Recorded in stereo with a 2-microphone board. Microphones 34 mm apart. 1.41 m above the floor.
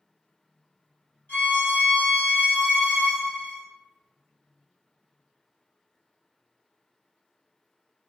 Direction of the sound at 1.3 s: 60° left (ahead or behind).